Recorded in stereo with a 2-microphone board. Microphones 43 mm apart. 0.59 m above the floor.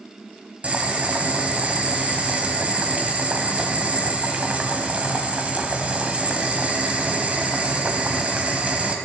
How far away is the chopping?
I don't hear chopping.